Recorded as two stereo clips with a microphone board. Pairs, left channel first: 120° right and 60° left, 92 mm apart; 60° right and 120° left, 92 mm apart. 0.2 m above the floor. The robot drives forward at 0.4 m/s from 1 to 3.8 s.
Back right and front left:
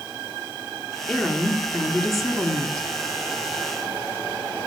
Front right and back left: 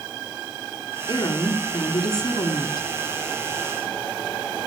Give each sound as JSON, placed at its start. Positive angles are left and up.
{"t": 1.1, "sound": "a woman speaking", "azimuth_deg": -30, "distance_m": 3.0}